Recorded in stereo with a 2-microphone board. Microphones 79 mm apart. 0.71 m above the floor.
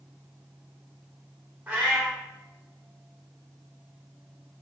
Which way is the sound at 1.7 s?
20° right (ahead or behind).